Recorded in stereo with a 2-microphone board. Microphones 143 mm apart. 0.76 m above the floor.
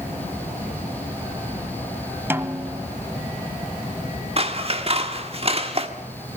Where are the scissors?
40° right (ahead or behind), 1.8 m.